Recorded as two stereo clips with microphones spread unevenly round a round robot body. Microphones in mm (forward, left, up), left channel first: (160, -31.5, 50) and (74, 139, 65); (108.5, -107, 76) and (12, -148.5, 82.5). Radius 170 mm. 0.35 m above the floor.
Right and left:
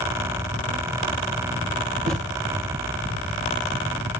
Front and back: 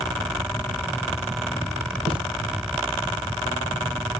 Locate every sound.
2.1 s a thud: 170° left, 6 m